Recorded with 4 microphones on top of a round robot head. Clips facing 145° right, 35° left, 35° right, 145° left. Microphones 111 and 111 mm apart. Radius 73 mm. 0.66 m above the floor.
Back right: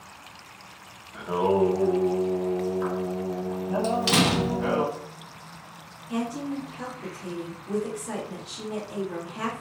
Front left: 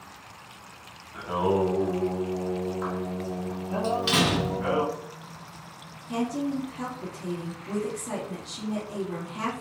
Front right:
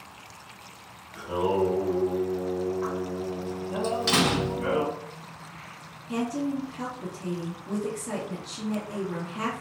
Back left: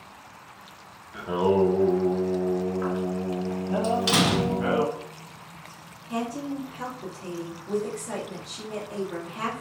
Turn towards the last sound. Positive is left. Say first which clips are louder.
# front left 2 dB, front right 2 dB
turn(degrees=-5)